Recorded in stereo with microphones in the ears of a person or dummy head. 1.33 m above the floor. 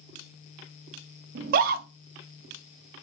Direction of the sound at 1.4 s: 55° right (ahead or behind).